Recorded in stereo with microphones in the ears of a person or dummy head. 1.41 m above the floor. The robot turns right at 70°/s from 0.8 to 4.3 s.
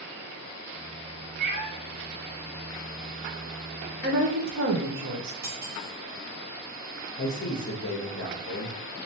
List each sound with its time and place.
1.4 s a cat meowing: 40° right (ahead or behind), 0.8 m; by 1.7 s 45° right (ahead or behind), 0.8 m
4.0 s a woman speaking: 40° right (ahead or behind), 0.7 m; by 5.3 s 55° right (ahead or behind), 0.7 m
5.4 s cutlery clinking: 15° right (ahead or behind), 0.8 m
7.2 s a man speaking: 50° left (ahead or behind), 0.7 m